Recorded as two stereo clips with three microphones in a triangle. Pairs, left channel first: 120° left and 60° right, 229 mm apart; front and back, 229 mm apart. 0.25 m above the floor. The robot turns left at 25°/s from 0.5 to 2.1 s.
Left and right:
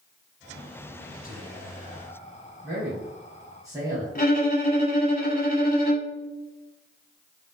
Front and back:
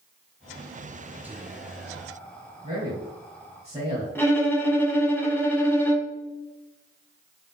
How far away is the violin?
About 1.0 m.